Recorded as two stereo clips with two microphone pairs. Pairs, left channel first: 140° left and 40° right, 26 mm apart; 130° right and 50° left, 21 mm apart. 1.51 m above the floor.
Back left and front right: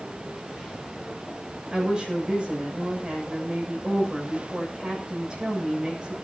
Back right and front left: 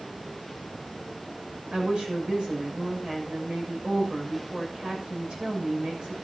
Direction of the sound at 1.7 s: 15° left.